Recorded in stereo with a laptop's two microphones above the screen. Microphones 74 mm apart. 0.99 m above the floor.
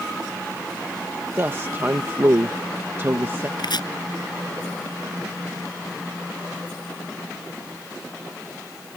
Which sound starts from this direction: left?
Chopping, at 3.6 s.